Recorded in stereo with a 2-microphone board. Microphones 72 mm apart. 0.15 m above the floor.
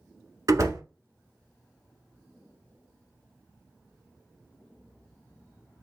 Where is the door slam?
45° right (ahead or behind), 1.0 m.